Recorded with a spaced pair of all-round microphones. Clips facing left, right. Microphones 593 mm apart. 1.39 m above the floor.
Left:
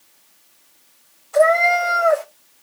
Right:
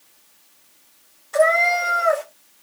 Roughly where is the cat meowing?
Right.